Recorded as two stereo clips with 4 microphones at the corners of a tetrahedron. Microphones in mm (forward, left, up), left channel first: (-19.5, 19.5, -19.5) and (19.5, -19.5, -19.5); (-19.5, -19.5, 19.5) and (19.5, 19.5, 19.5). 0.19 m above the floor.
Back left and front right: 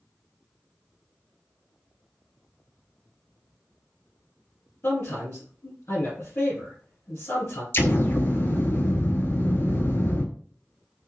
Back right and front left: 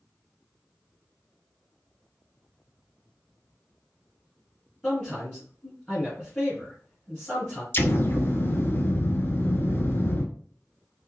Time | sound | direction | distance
4.8 | a man speaking | 155° left | 2.5 m
7.7 | an explosion | straight behind | 0.6 m